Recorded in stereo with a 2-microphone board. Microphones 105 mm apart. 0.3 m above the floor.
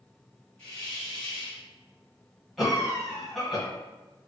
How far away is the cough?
About 1.2 m.